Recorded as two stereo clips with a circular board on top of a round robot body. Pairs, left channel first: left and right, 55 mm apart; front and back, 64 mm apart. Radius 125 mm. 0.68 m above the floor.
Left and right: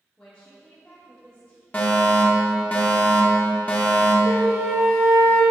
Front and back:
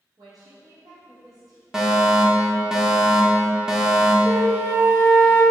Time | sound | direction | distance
0.2 | a woman speaking | 165° left | 1.8 m
1.7 | a fire alarm | 110° left | 1.5 m
4.2 | a flute | 130° right | 1.8 m